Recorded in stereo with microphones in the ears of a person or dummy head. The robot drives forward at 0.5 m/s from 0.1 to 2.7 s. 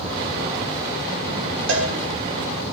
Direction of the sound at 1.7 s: 70° right (ahead or behind).